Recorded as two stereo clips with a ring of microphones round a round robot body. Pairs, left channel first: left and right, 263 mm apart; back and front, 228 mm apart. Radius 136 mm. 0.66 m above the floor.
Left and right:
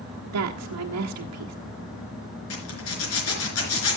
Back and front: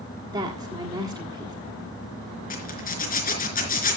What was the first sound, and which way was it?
A woman speaking, 75° right.